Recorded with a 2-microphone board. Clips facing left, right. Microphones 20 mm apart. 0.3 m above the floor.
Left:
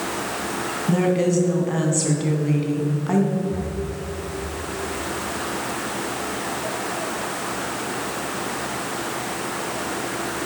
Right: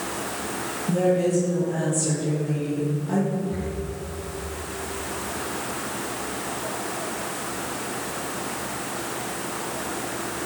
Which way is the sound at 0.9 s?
50° left (ahead or behind).